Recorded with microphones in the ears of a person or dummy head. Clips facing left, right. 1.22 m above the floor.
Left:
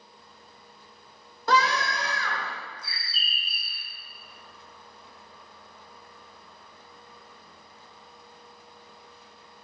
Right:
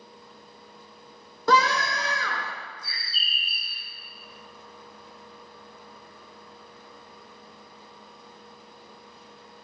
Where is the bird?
45° right (ahead or behind), 1.5 m.